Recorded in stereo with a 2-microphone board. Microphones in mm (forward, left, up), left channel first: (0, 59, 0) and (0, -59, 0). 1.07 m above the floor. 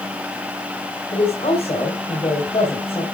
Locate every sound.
1.1 s a woman speaking: 50° left (ahead or behind), 4 m